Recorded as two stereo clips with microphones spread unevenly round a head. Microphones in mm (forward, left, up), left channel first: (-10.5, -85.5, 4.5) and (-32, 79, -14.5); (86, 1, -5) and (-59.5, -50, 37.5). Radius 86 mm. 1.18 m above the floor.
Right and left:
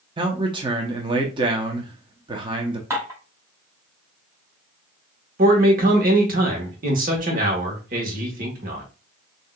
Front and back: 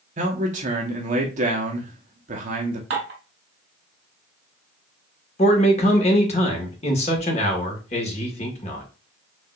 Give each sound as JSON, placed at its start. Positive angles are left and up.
{"t": 0.2, "sound": "a man speaking", "azimuth_deg": 150, "distance_m": 0.8}
{"t": 2.9, "sound": "dishes clattering", "azimuth_deg": 175, "distance_m": 2.5}
{"t": 5.4, "sound": "a man speaking", "azimuth_deg": 60, "distance_m": 1.4}